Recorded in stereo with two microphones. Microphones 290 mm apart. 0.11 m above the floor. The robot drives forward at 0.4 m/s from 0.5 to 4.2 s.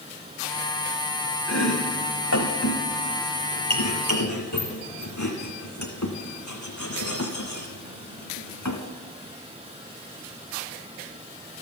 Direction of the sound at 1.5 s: 60° left (ahead or behind).